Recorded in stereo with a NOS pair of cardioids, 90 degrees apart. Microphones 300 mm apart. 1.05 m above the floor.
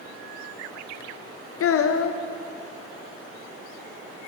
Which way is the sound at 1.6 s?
50° left.